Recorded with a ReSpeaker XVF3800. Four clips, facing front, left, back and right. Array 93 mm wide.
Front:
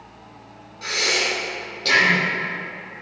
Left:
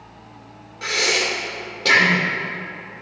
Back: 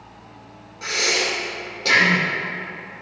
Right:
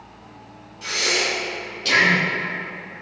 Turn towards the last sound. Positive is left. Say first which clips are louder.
# left 2 dB, even
turn(degrees=100)